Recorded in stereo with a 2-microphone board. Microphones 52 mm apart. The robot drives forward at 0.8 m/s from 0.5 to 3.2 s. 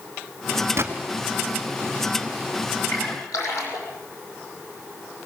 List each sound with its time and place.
0.8 s a gunshot: 55° right (ahead or behind), 2.5 m
2.9 s a splash: 80° left, 6 m